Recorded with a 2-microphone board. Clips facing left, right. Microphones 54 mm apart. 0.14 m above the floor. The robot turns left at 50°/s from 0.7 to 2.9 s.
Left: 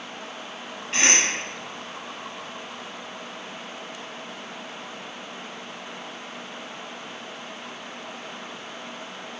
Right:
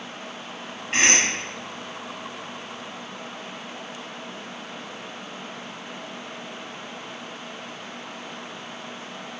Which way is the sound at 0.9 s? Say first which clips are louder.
Right 2 dB; 25° right (ahead or behind).